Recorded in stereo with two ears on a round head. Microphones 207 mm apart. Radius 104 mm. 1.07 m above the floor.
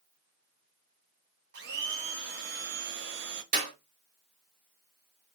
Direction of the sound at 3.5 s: 30° right (ahead or behind).